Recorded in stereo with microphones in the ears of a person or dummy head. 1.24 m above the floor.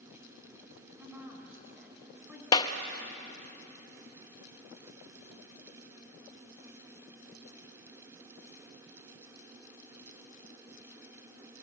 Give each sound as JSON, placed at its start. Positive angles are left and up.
{"t": 1.0, "sound": "a woman speaking", "side_deg": -5, "distance_m": 6.0}
{"t": 2.5, "sound": "a clap", "side_deg": 25, "distance_m": 1.0}